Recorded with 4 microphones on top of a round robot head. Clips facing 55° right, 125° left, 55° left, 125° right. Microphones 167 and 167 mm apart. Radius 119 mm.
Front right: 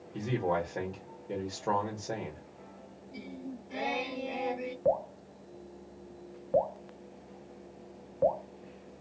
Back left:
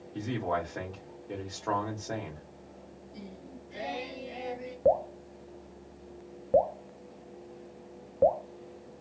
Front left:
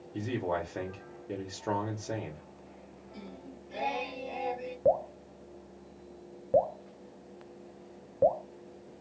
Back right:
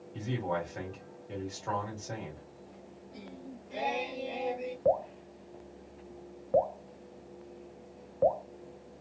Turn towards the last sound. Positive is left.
turn(degrees=95)